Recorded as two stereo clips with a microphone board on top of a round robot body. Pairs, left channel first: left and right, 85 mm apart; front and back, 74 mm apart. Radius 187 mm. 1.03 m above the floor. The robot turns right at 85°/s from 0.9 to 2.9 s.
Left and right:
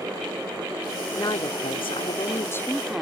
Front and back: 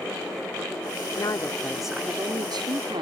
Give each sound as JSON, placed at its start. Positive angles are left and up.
{"t": 1.2, "sound": "a woman speaking", "azimuth_deg": 35}